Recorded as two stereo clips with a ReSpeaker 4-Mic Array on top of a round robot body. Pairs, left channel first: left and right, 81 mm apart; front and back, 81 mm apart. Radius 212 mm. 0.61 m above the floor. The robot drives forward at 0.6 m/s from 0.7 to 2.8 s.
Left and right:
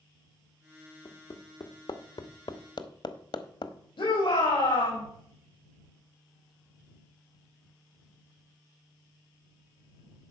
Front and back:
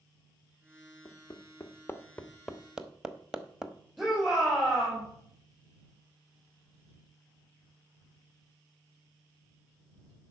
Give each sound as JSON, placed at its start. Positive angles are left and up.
{"t": 1.1, "sound": "hammering", "azimuth_deg": 45, "distance_m": 1.4}
{"t": 4.0, "sound": "a shout", "azimuth_deg": 95, "distance_m": 5.0}